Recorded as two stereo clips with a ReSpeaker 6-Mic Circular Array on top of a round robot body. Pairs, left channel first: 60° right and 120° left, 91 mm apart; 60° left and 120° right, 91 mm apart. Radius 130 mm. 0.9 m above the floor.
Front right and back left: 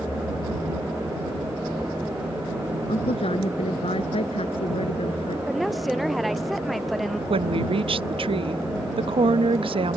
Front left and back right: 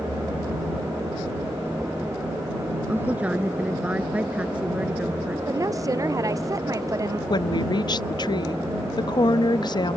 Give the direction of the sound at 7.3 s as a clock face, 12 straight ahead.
9 o'clock.